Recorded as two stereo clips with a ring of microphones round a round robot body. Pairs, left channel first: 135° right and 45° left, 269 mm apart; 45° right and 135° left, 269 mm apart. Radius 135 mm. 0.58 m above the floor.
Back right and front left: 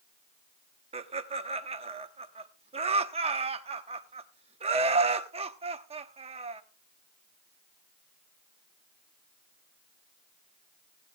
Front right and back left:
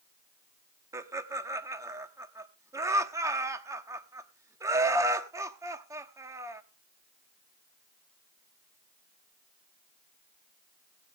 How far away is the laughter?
About 0.9 m.